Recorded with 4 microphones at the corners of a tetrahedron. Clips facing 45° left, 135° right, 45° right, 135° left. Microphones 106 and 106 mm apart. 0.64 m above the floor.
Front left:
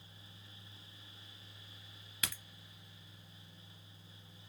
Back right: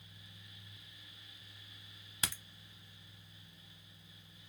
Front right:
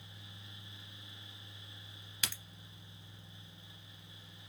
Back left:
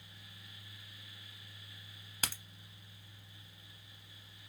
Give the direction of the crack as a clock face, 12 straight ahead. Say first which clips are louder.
Back right 2 dB, back left 2 dB; 6 o'clock.